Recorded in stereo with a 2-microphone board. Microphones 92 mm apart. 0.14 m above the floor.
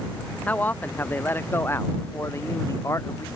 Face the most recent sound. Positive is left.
turn(degrees=35)  # may be behind; listen again after turning